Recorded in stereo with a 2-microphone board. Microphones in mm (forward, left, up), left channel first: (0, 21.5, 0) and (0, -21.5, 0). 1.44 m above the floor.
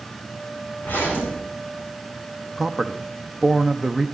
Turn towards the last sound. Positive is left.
turn(degrees=-5)  # may be behind; listen again after turning